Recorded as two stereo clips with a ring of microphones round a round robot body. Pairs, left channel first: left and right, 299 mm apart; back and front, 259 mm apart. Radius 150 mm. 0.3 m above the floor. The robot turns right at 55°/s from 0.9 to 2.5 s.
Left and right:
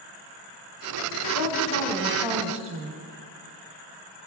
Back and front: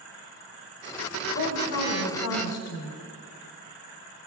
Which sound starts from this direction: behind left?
A woman speaking, at 1.4 s.